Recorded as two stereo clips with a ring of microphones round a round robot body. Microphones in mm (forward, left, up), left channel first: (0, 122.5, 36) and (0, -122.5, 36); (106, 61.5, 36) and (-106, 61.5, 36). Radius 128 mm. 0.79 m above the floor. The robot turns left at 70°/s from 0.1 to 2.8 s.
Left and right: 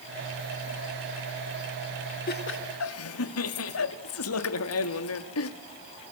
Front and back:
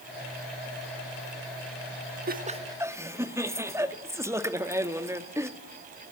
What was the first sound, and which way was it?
Laughter, 140° left.